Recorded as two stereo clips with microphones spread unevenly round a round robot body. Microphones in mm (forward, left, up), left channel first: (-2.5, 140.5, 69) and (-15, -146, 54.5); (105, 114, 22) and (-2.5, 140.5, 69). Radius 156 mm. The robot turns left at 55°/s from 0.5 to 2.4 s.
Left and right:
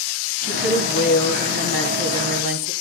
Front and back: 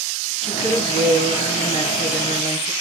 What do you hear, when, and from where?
0.4 s a woman speaking: straight ahead, 5 m; by 2.7 s 105° right, 5 m